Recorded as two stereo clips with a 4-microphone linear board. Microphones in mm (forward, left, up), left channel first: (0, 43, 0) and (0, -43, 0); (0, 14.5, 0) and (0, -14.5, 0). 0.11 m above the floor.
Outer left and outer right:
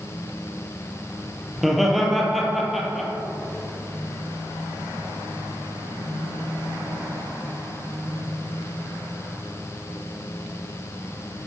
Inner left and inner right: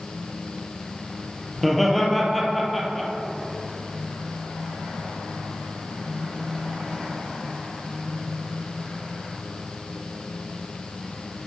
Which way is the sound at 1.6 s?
Centre (ahead or behind).